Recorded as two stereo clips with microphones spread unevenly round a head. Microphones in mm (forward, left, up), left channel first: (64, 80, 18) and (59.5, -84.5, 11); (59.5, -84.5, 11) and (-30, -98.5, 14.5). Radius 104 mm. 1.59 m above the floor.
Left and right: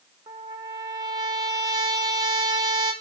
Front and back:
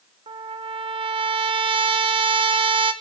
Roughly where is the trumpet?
Behind.